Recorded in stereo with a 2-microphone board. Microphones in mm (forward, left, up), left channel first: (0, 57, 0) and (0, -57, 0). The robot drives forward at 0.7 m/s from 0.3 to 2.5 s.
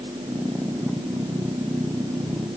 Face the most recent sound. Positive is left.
No sound to turn to.